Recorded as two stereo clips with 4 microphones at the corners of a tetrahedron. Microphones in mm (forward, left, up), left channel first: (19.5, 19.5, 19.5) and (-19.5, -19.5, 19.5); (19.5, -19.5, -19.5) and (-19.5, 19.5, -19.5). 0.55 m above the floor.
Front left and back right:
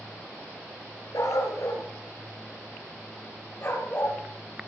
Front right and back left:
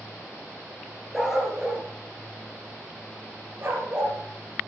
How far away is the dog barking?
About 2.5 m.